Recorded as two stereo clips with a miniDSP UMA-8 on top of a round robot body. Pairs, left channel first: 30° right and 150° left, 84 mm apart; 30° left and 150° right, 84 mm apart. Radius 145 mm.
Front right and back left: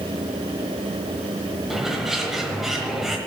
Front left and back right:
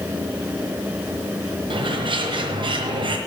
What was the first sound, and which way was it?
A bird, 125° right.